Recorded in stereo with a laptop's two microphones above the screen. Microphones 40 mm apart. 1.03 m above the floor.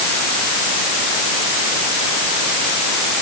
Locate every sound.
Only background noise.